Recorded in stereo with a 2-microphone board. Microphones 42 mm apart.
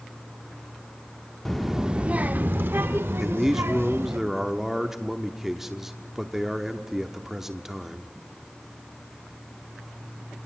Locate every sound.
1.4 s a child speaking: 5° left (ahead or behind), 0.6 m; by 4.2 s 75° right (ahead or behind), 1.8 m
3.2 s a man speaking: 10° right (ahead or behind), 1.0 m